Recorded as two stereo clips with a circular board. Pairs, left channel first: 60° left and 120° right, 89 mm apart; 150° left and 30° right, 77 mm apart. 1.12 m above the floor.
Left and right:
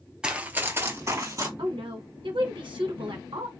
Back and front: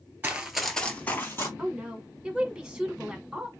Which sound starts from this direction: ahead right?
Running footsteps, at 0.2 s.